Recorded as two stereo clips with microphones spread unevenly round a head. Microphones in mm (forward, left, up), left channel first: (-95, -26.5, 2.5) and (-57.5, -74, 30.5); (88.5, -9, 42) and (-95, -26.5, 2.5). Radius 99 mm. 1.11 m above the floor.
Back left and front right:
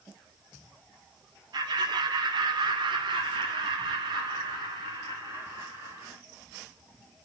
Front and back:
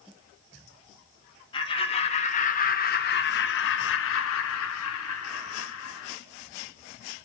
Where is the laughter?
60° right, 2.5 m; by 6.2 s 30° left, 3 m.